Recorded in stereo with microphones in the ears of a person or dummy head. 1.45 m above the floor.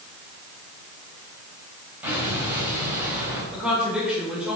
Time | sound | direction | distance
2.0 | an explosion | 5° right (ahead or behind) | 4.5 m
3.5 | a woman speaking | centre (ahead or behind) | 4.5 m